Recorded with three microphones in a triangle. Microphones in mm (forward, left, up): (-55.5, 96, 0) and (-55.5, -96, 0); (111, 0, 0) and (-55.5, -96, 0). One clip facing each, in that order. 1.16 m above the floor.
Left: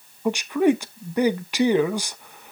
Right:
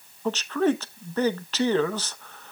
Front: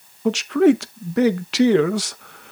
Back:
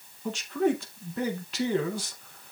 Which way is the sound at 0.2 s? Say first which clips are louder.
Left 4 dB, front 11 dB; 15° left.